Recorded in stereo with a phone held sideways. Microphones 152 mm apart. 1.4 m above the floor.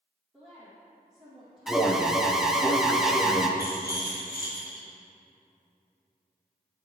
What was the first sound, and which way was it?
A woman speaking, centre (ahead or behind).